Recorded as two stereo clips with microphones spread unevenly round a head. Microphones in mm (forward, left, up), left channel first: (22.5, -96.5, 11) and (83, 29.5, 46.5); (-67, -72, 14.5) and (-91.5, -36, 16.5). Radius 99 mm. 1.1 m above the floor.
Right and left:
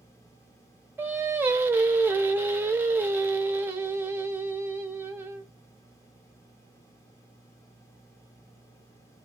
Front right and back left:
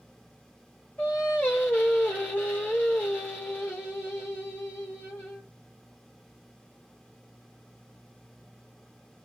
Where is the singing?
Straight ahead, 0.7 m.